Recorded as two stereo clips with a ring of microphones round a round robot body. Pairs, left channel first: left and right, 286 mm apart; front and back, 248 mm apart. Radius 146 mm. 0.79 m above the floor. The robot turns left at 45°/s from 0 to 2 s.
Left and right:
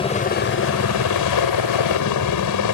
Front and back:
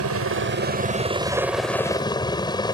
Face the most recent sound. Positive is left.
turn(degrees=70)